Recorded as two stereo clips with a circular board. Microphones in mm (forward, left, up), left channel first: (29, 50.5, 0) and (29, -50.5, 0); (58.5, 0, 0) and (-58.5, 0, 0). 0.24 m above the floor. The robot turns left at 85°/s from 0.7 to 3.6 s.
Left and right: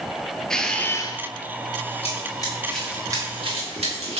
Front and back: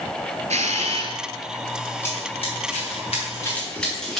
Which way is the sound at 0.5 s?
175° left.